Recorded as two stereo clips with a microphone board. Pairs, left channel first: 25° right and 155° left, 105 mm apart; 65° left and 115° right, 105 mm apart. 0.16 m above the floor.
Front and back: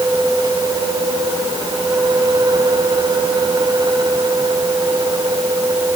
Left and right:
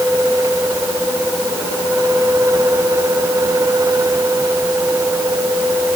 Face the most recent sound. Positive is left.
No sound to turn to.